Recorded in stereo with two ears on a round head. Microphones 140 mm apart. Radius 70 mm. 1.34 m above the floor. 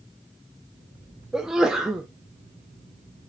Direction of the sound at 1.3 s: 5° right (ahead or behind).